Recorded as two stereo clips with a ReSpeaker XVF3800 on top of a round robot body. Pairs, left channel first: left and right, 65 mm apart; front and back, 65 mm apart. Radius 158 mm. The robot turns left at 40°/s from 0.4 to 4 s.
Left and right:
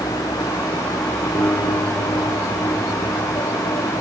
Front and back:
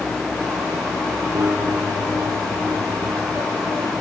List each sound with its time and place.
1.4 s a guitar: 145° left, 5 m; by 3.5 s 60° left, 5 m